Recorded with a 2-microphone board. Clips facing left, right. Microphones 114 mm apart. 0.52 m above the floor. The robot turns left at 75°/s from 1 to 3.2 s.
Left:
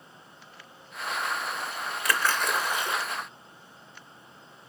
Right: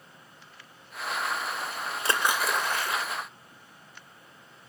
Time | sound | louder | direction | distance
2.0 | a splash | even | 145° right | 1.8 m